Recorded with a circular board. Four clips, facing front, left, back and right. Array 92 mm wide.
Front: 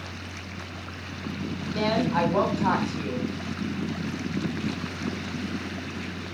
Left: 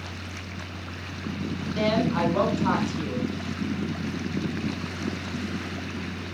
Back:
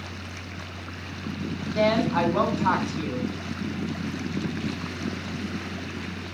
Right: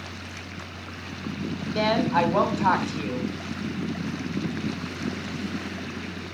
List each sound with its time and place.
1.8 s a woman speaking: 80° right, 3 m